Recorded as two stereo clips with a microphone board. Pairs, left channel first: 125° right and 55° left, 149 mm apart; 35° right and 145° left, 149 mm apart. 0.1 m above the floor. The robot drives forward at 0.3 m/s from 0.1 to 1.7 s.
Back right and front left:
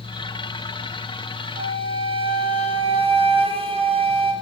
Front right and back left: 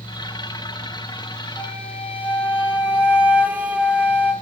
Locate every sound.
1.6 s a flute: 65° left, 0.6 m; by 4.3 s 70° left, 0.6 m